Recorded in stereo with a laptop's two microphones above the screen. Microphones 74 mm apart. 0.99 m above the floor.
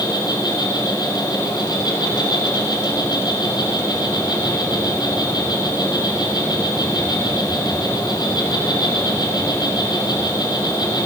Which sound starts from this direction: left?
An insect, at 0.0 s.